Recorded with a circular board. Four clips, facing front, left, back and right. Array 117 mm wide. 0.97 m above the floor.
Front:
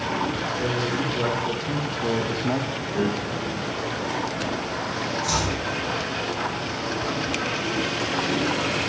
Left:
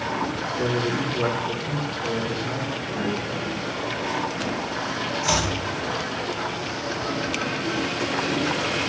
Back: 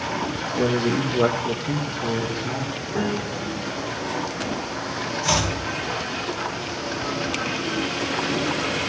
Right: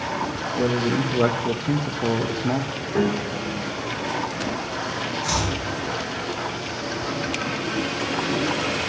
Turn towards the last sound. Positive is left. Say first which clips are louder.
# left 2 dB, back 4 dB
turn(degrees=145)